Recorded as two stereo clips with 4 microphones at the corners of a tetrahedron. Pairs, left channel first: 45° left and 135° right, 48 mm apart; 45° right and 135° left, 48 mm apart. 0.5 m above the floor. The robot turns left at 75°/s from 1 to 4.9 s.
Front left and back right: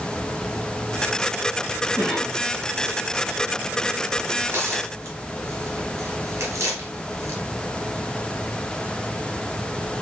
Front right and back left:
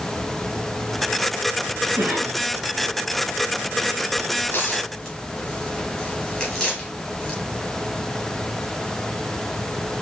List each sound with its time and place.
2.0 s a cough: 140° left, 3.5 m; by 2.4 s 105° left, 3.5 m
4.4 s tearing paper: 80° right, 2.5 m; by 7.4 s 115° right, 2.5 m